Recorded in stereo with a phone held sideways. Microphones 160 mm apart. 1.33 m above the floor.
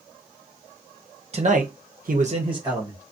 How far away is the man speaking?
About 0.8 m.